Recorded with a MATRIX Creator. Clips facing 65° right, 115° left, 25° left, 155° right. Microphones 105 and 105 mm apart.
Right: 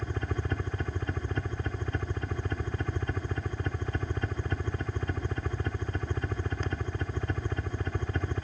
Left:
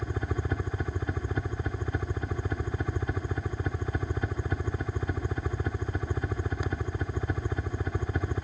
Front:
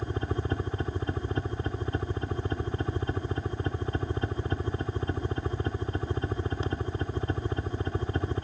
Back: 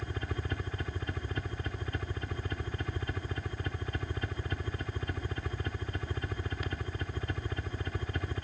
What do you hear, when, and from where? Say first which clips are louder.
0.0 s a helicopter: left 1 dB, front 7 dB; 40° left